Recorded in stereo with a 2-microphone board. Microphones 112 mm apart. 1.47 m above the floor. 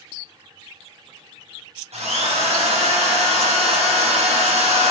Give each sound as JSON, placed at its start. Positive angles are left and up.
{"t": 1.9, "sound": "a drill", "side_deg": -70, "distance_m": 1.2}